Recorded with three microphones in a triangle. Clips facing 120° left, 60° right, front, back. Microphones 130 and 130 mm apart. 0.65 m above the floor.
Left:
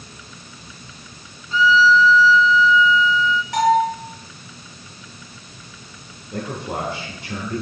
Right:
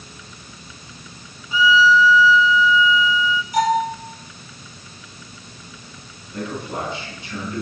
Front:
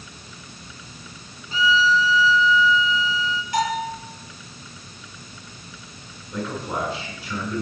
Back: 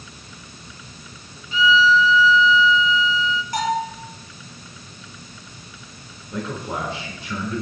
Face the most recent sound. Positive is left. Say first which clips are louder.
# left 1 dB, even
turn(degrees=105)